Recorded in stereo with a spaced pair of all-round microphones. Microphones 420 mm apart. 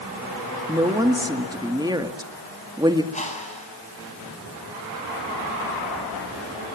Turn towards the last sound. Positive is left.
turn(degrees=15)  # may be behind; listen again after turning